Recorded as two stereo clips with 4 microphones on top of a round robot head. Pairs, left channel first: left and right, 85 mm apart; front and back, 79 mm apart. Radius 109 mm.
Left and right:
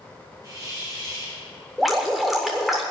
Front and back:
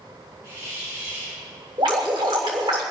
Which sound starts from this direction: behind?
Dripping, at 1.8 s.